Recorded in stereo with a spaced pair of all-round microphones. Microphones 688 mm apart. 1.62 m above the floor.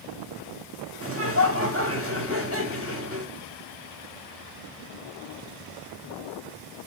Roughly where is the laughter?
Centre.